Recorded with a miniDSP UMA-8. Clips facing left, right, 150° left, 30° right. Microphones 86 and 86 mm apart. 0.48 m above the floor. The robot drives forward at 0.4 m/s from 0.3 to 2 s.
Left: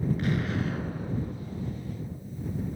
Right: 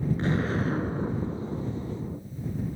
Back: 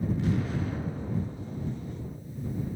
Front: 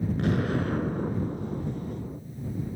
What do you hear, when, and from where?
0.2 s an explosion: 35° right, 0.9 m; by 2.2 s 85° right, 0.6 m